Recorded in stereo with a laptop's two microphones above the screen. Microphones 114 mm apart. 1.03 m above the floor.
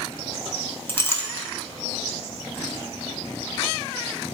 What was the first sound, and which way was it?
A clink, 20° left (ahead or behind).